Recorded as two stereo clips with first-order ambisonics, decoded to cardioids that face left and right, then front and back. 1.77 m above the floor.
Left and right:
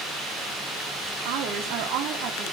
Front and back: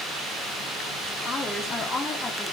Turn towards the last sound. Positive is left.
turn(degrees=-75)